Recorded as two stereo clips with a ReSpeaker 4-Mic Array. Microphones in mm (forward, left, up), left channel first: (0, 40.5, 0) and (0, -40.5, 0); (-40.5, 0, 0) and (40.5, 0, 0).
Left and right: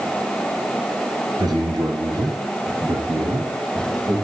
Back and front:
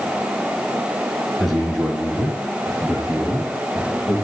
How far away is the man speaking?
About 3 m.